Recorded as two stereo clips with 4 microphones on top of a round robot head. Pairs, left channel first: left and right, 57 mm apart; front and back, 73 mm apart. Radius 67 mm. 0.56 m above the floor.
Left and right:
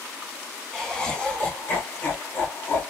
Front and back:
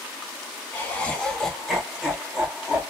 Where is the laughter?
25° left, 1.1 m; by 2.9 s 115° left, 1.4 m.